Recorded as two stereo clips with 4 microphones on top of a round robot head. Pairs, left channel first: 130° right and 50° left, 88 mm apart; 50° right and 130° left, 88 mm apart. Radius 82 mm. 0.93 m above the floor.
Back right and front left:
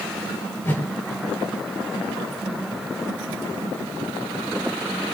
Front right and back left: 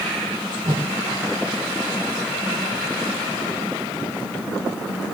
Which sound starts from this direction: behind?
A whoosh, at 0.6 s.